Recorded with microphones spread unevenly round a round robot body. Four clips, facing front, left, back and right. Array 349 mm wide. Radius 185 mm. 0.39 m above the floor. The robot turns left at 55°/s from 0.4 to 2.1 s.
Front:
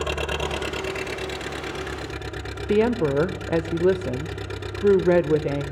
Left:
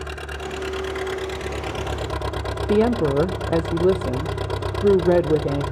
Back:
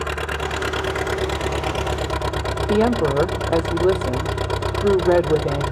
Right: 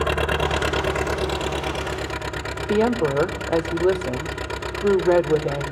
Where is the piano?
No piano in this recording.